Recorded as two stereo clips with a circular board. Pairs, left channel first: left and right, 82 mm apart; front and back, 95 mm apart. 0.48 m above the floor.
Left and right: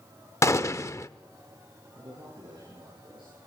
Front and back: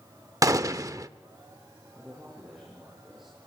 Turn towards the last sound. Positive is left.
turn(degrees=-95)